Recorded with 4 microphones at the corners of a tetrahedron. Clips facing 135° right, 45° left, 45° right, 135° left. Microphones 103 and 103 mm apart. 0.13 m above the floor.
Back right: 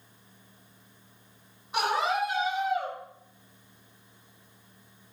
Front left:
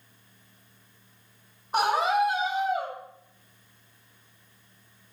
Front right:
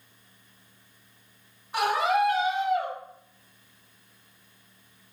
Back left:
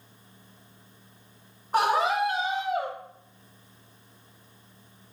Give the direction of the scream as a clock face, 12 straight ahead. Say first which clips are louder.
Front left 4 dB, back left 1 dB; 9 o'clock.